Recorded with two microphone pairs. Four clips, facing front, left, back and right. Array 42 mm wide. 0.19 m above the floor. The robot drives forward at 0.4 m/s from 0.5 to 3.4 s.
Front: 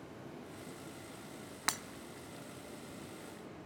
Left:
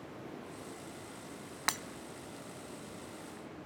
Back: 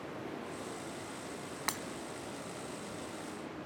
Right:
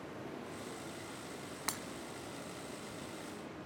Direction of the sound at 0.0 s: 175° right.